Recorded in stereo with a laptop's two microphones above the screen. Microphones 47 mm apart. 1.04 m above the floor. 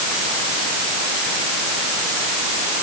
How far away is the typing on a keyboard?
No typing on a keyboard in this recording.